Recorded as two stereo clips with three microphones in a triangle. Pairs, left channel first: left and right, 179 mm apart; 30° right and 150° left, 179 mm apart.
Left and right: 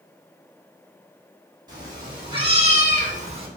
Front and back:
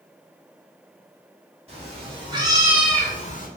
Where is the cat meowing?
155° right, 1.6 m; by 3.5 s 35° right, 0.6 m.